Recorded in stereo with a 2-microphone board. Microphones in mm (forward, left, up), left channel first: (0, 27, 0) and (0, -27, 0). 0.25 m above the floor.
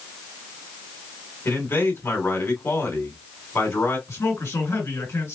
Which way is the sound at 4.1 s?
65° left (ahead or behind).